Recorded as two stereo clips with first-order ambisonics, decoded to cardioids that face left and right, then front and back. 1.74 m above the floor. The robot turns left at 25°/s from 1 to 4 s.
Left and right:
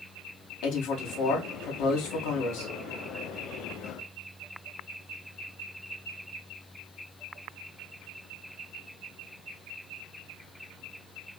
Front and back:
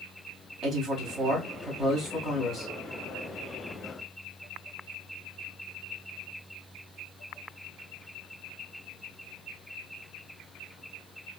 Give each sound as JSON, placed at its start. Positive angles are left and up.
{"t": 0.6, "sound": "a man speaking", "azimuth_deg": 125, "distance_m": 1.4}